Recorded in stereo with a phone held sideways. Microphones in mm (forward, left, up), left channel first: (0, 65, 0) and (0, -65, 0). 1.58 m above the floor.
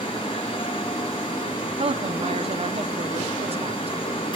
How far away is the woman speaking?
About 0.6 m.